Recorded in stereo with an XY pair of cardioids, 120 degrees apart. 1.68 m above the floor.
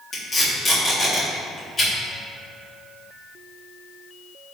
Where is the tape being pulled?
35° left, 1.8 m.